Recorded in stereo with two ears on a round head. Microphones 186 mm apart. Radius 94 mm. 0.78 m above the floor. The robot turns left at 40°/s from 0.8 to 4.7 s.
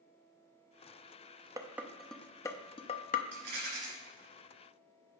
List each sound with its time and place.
1.6 s dishes clattering: 15° right (ahead or behind), 0.5 m; by 3.2 s 40° left (ahead or behind), 0.5 m
3.3 s a rattle: 60° right (ahead or behind), 3 m; by 3.9 s 40° right (ahead or behind), 3 m